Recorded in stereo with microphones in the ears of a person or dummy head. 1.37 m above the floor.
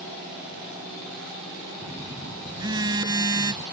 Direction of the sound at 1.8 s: 20° right (ahead or behind).